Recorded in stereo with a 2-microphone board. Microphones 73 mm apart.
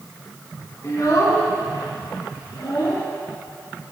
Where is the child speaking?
45° left (ahead or behind), 1.6 m; by 3.0 s 65° left (ahead or behind), 2.5 m.